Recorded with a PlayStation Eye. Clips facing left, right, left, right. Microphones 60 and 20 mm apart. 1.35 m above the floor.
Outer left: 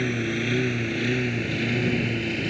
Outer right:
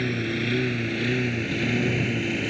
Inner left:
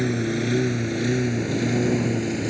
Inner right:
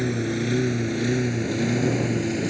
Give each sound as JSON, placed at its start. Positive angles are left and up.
{"t": 0.0, "sound": "a lawn mower", "side_deg": 5}